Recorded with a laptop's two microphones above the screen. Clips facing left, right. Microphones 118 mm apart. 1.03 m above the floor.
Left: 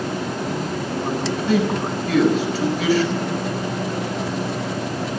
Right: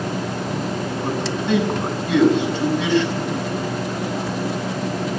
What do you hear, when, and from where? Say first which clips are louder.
1.0 s a man speaking: left 1 dB; 10° left (ahead or behind), 6 m